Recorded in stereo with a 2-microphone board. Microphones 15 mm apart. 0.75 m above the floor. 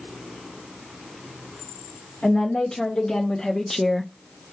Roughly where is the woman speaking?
Left.